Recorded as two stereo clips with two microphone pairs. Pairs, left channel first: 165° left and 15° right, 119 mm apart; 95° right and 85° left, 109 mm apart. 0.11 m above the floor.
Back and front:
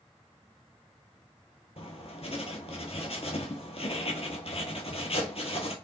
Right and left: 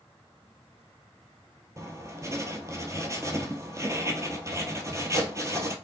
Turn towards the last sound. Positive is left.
turn(degrees=140)